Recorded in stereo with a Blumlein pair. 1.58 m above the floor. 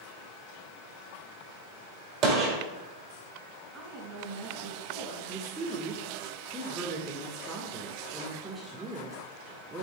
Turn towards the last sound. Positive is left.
turn(degrees=-20)